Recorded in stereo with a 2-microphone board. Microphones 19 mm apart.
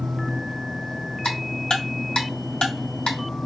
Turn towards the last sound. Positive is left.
turn(degrees=85)